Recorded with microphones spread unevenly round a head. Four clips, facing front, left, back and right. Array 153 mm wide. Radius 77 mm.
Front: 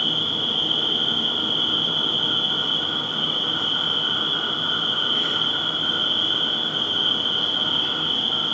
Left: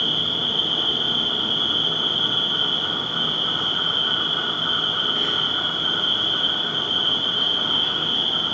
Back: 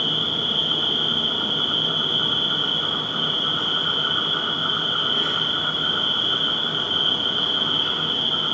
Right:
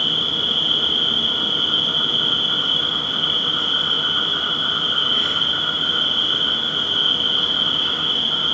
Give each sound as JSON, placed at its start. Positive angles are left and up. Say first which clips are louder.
{"t": 0.0, "sound": "an insect", "louder": "right 1 dB, back 1 dB", "azimuth_deg": -95, "distance_m": 1.8}